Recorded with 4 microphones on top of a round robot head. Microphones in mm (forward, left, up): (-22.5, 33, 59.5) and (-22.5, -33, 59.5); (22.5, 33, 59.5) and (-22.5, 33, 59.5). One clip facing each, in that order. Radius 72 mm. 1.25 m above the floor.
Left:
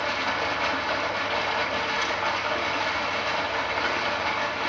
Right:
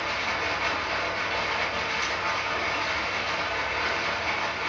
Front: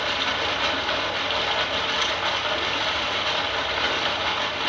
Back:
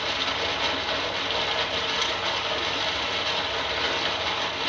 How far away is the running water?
About 2.5 m.